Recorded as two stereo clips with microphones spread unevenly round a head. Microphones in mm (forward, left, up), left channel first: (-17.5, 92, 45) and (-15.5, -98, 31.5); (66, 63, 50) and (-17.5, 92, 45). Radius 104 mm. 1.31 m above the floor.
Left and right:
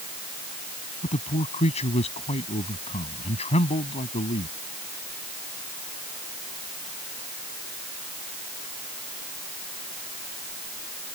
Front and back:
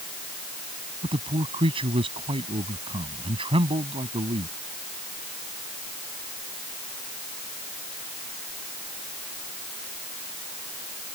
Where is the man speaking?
150° left.